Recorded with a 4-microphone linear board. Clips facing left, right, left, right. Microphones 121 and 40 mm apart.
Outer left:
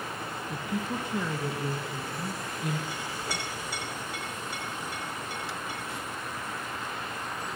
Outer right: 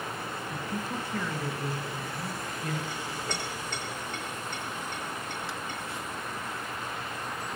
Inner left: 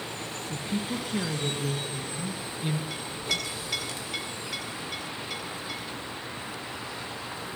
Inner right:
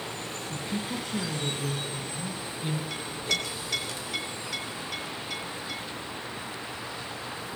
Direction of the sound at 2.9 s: 5° left (ahead or behind).